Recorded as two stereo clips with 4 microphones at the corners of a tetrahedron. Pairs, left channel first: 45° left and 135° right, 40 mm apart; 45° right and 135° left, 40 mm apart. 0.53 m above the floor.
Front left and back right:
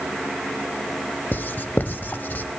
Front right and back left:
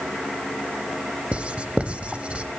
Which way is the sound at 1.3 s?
80° left.